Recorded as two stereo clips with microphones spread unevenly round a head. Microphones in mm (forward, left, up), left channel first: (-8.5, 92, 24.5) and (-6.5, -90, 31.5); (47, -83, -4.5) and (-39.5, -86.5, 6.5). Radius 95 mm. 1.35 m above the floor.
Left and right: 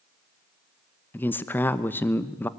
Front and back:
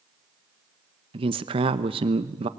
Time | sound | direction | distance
1.1 | a man speaking | 170° left | 1.0 m